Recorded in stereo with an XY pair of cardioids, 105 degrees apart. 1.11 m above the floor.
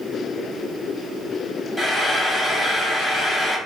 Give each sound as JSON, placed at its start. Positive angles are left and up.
{"t": 1.8, "sound": "frying", "azimuth_deg": 10, "distance_m": 1.2}